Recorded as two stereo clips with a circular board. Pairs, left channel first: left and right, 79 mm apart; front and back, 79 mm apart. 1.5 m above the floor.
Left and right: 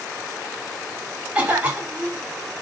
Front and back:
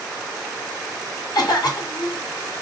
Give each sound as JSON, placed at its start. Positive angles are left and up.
{"t": 1.4, "sound": "a cough", "azimuth_deg": -20, "distance_m": 3.0}